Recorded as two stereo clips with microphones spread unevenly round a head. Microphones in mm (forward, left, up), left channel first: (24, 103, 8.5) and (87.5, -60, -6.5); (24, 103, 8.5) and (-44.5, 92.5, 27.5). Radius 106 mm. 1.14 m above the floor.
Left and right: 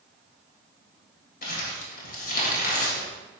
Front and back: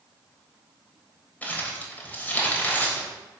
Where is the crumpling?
80° left, 3.5 m.